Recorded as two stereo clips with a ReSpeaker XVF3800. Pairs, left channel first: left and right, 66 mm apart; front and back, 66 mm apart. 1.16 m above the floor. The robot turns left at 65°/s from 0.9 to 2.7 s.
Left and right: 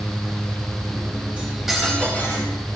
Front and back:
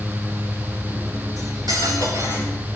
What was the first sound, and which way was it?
Cutlery clinking, 155° right.